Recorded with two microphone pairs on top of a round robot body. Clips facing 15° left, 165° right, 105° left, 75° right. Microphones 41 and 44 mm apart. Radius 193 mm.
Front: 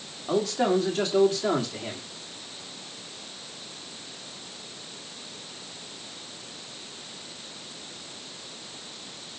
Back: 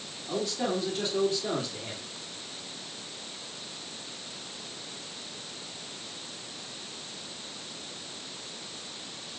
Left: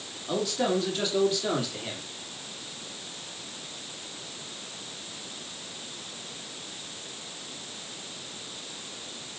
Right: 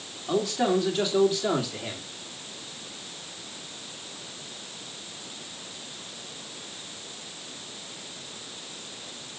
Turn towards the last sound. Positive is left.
turn(degrees=10)